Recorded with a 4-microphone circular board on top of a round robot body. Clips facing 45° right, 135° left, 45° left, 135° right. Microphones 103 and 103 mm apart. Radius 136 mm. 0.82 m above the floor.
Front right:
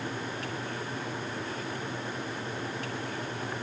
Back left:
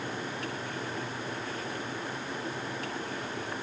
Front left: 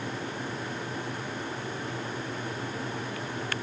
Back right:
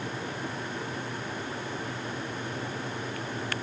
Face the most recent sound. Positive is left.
No sound to turn to.